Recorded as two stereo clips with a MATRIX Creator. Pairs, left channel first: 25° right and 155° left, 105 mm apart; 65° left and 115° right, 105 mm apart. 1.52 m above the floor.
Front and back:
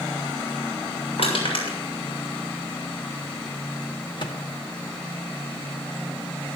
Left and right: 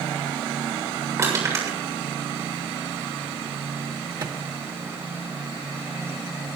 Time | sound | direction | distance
1.2 | crushing | 50° right | 7 m
4.2 | a microwave | 65° right | 2 m